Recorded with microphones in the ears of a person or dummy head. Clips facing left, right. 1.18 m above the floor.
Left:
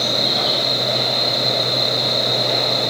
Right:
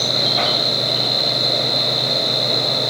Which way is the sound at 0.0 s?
65° right (ahead or behind).